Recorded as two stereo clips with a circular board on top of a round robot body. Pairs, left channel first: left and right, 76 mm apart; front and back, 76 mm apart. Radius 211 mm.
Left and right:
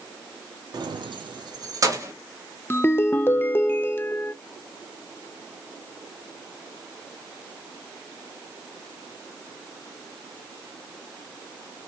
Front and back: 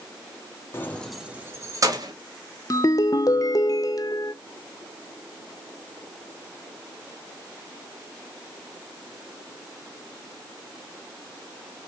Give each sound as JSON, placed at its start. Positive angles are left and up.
{"t": 0.7, "sound": "keys jangling", "azimuth_deg": -60, "distance_m": 0.9}
{"t": 2.7, "sound": "a ringtone", "azimuth_deg": 30, "distance_m": 0.6}